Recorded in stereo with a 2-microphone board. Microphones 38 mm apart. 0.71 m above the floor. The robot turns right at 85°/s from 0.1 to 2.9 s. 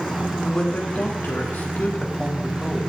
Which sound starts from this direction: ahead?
A man speaking, at 0.4 s.